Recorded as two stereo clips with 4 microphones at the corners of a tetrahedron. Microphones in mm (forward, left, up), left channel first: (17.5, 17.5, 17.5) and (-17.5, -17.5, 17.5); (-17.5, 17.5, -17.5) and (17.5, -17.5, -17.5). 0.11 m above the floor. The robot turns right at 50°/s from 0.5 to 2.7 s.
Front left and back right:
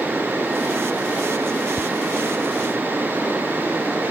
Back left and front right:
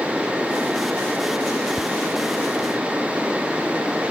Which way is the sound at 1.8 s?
85° left.